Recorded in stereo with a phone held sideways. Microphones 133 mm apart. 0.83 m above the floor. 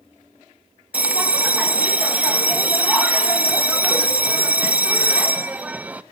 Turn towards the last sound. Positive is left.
turn(degrees=-10)  # may be behind; listen again after turning